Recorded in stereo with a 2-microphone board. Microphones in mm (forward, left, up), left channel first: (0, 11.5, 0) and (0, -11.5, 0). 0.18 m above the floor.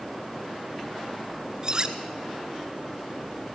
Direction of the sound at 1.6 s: 35° right (ahead or behind).